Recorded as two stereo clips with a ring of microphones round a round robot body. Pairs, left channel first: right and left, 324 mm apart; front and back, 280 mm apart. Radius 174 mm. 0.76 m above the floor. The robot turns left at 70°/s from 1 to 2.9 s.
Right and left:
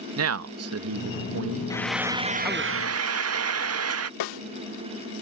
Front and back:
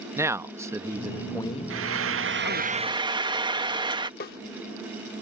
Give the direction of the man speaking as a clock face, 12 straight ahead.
9 o'clock.